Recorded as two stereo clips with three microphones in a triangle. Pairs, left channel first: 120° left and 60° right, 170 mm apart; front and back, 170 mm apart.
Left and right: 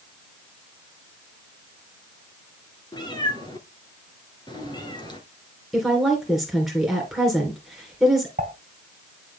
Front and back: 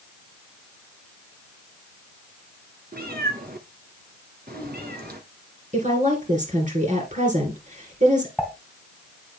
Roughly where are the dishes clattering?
Right.